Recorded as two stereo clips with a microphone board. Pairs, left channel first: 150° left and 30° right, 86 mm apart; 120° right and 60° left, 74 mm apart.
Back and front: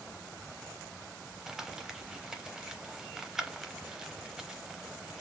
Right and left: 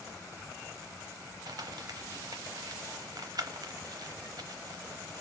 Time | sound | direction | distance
1.5 | crumpling | 55° left | 0.8 m